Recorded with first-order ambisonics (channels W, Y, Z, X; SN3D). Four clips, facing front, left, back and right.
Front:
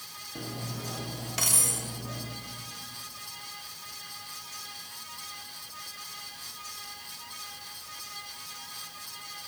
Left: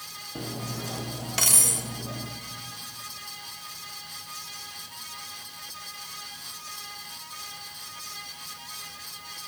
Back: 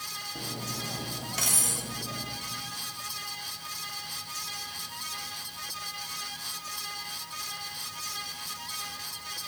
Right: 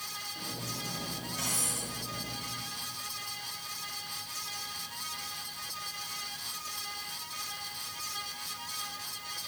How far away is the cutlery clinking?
About 0.8 m.